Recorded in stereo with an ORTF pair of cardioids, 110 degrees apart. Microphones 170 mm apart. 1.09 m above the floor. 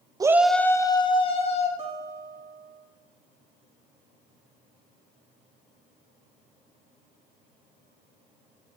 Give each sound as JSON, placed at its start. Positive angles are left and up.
{"t": 0.2, "sound": "a shout", "azimuth_deg": -20, "distance_m": 0.6}
{"t": 1.8, "sound": "a guitar", "azimuth_deg": -35, "distance_m": 2.5}